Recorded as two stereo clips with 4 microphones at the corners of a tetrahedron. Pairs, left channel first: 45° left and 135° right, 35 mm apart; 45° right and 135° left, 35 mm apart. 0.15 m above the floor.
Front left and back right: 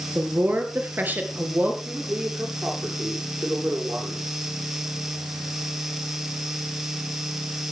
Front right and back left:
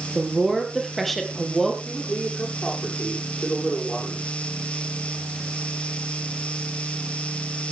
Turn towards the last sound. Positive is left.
turn(degrees=-105)